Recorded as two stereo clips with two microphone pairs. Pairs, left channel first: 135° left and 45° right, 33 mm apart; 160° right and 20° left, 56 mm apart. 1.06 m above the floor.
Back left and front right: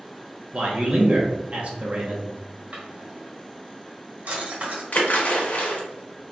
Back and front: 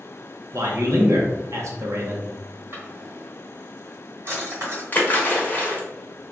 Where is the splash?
150° left, 0.8 m.